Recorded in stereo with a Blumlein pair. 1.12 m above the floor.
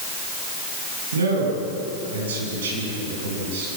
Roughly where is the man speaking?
Ahead right.